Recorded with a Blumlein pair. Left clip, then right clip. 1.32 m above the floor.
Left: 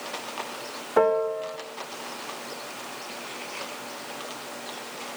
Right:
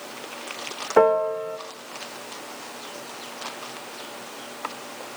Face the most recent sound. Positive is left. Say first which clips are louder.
# right 3 dB
turn(degrees=-15)